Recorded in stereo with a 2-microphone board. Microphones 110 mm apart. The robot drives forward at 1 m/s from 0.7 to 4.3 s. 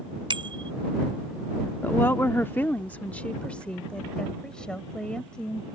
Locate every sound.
0.3 s a bicycle bell: 50° right (ahead or behind)
1.8 s a woman speaking: 20° left (ahead or behind); by 5.7 s 5° left (ahead or behind)